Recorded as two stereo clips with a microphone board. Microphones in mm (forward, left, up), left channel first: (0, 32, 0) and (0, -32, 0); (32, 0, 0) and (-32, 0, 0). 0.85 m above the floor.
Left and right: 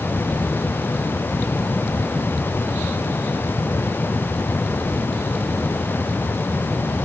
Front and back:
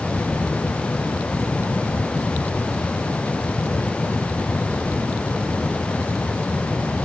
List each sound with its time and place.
Only background noise.